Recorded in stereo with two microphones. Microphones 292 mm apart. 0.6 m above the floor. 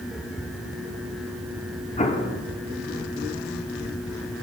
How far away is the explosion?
About 0.6 m.